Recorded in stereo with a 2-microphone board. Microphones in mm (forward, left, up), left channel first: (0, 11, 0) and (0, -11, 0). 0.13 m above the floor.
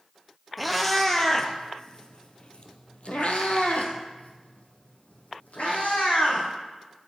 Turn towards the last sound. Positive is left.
turn(degrees=80)